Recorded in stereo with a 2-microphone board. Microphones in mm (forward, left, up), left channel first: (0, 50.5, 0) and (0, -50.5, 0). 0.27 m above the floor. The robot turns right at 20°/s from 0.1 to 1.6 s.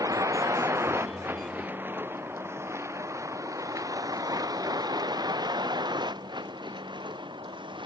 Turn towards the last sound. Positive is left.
turn(degrees=-55)  # may be behind; listen again after turning